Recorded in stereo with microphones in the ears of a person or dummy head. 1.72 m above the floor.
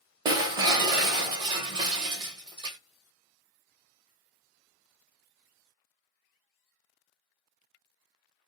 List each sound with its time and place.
0.2 s breaking glass: 25° right (ahead or behind), 0.9 m